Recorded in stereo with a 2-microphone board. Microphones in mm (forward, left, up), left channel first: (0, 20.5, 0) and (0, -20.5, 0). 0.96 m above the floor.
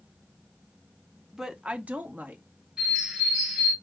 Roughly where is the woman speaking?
Centre.